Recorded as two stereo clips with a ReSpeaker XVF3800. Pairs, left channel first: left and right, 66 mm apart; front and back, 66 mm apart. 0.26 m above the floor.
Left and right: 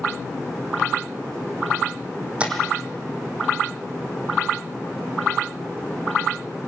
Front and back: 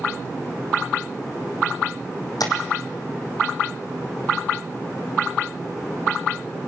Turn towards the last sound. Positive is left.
turn(degrees=-20)